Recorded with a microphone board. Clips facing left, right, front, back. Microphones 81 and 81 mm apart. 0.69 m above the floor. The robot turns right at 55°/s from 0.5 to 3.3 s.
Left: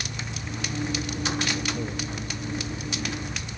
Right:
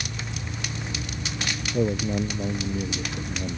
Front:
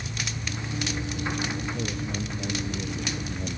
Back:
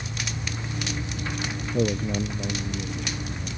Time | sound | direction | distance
1.7 | a man speaking | 145° right | ?